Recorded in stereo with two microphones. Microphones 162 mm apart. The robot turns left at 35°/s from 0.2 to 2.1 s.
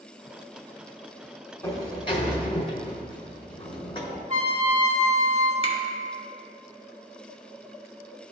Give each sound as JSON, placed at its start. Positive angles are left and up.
{"t": 1.6, "sound": "a sliding door", "side_deg": 20, "distance_m": 1.1}
{"t": 4.3, "sound": "a trumpet", "side_deg": -40, "distance_m": 2.5}
{"t": 5.6, "sound": "a finger snap", "side_deg": 40, "distance_m": 1.3}